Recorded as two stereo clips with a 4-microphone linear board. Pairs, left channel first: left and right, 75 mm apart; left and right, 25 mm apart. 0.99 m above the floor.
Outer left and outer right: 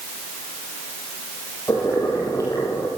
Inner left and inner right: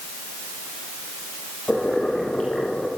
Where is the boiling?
40° left (ahead or behind), 8 m.